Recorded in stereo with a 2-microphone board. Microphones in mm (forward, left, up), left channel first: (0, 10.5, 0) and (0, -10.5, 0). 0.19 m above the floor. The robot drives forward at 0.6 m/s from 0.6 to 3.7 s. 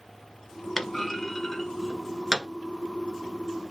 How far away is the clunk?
About 0.9 m.